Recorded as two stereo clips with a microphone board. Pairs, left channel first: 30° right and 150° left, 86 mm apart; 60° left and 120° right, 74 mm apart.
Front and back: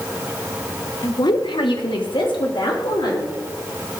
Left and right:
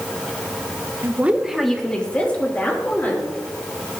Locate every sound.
1.0 s a woman speaking: 70° right, 0.8 m; by 3.3 s straight ahead, 3 m